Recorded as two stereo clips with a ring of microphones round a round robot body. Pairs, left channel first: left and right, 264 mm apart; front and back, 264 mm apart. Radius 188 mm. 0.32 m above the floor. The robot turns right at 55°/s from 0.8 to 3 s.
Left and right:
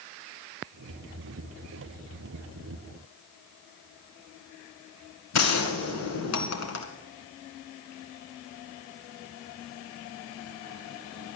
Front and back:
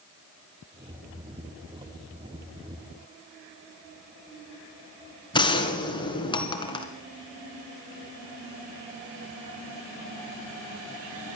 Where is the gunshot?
75° left, 1.8 m.